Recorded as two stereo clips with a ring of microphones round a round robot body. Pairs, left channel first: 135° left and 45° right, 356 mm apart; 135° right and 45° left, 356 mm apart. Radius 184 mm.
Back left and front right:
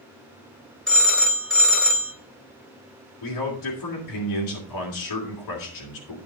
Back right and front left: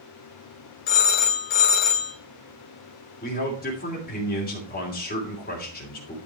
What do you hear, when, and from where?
0.9 s a phone ringing: 135° right, 2.5 m
3.2 s a man speaking: 160° left, 3 m